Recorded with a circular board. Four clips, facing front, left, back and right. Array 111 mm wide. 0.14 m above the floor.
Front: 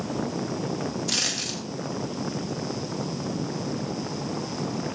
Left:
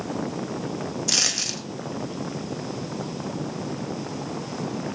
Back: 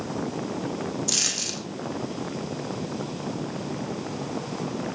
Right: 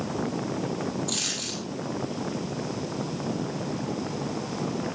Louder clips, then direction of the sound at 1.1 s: Left 2 dB, front 1 dB; 80° left.